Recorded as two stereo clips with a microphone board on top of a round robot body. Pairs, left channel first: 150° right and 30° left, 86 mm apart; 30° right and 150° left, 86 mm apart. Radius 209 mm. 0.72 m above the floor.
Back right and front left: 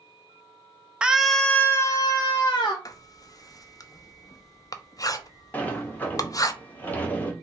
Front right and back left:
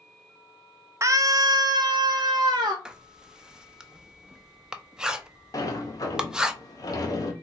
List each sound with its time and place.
1.0 s a scream: 105° left, 0.8 m; by 2.8 s 170° right, 1.1 m
2.9 s writing: 130° right, 0.7 m
5.5 s a sliding door: 75° right, 0.9 m